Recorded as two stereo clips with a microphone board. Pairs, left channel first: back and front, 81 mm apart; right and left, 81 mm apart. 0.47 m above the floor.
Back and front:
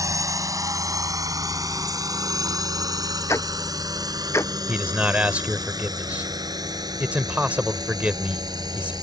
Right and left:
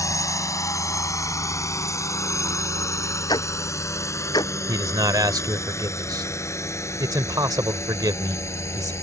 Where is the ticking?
125° right.